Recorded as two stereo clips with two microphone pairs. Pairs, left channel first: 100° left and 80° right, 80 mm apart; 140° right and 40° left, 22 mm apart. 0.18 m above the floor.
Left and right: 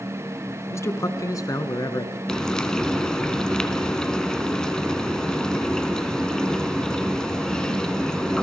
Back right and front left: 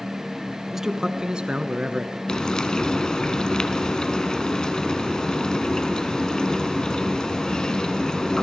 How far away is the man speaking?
About 1.2 m.